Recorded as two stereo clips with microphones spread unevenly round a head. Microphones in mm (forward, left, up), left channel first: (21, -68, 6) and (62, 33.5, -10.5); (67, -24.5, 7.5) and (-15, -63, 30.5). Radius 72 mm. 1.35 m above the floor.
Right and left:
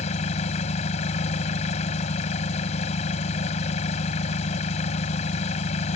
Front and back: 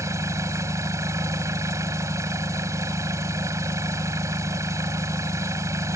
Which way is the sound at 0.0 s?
105° right.